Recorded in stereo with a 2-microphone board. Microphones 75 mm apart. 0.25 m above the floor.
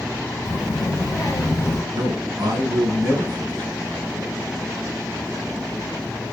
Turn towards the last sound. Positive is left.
turn(degrees=-50)  # may be behind; listen again after turning